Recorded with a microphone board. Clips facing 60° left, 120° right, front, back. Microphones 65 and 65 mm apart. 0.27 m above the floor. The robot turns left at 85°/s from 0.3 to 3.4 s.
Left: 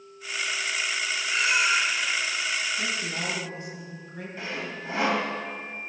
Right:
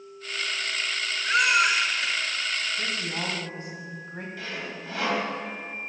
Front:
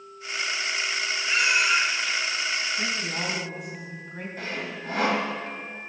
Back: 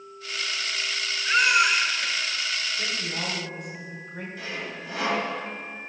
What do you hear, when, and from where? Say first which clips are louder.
1.2 s a baby crying: right 4 dB, back 3 dB; 125° right, 2.5 m; by 2.1 s 160° left, 2.5 m
2.8 s a woman speaking: even, front 2 dB; 35° right, 2 m; by 4.3 s 90° right, 2 m
4.4 s sawing: left 4 dB, front 3 dB; 10° left, 1.5 m